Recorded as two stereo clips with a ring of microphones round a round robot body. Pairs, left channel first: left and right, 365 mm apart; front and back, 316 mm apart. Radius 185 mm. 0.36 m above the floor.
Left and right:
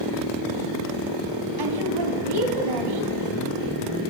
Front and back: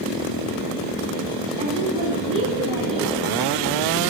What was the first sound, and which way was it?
A woman speaking, 105° right.